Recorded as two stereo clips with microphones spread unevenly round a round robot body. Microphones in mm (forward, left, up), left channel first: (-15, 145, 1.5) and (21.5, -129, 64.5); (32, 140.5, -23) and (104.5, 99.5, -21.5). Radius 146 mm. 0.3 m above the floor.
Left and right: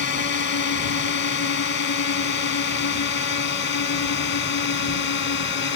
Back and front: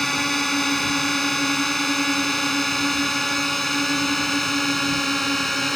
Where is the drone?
65° left.